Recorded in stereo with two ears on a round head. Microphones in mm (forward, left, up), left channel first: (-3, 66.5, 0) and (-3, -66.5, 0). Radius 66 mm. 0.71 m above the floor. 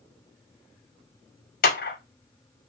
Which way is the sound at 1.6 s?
60° left (ahead or behind).